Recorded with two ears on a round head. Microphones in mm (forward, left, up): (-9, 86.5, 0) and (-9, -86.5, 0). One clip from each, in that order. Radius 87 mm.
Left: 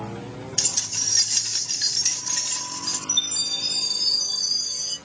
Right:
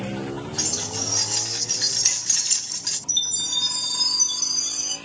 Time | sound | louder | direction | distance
0.6 | keys jangling | left 3 dB | 60° left (ahead or behind) | 1.0 m
3.1 | a chime | even | 60° right (ahead or behind) | 3 m